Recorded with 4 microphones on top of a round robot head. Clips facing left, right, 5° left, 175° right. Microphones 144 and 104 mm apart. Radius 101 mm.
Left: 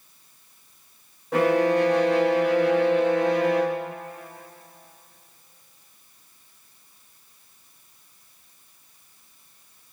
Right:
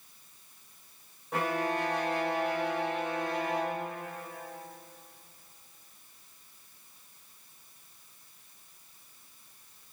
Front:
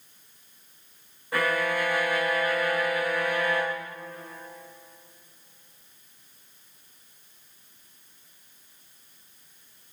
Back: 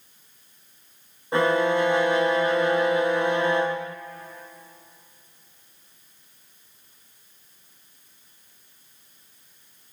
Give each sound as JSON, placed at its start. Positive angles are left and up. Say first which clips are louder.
{"t": 1.3, "sound": "a violin", "louder": "left 11 dB, back 6 dB", "azimuth_deg": 120, "distance_m": 0.6}